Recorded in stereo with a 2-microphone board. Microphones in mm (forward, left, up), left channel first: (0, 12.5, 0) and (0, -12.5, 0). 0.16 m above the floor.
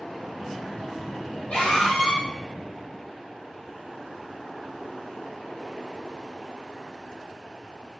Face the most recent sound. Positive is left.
turn(degrees=45)  # may be behind; listen again after turning